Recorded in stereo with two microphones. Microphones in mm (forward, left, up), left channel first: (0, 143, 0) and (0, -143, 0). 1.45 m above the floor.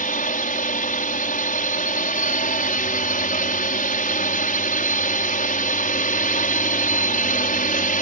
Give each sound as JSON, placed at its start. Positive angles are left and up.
{"t": 0.0, "sound": "a drone", "side_deg": 30}